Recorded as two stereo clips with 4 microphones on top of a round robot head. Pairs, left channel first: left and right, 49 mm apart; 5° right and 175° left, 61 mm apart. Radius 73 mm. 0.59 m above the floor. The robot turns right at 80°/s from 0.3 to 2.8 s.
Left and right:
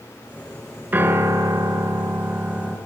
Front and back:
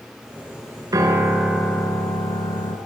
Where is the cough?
I don't hear a cough.